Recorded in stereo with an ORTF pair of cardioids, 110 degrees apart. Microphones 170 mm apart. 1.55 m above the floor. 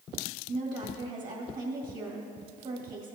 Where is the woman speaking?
55° right, 2 m.